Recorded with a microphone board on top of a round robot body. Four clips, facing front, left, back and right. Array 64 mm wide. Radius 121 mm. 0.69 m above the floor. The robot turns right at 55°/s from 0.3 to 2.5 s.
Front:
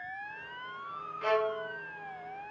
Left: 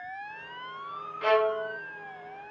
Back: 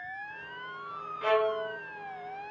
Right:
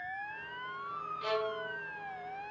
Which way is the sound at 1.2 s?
100° left.